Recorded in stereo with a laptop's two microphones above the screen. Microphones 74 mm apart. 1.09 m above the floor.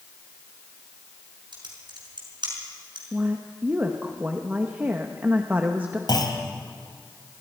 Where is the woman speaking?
25° right (ahead or behind), 1.5 m.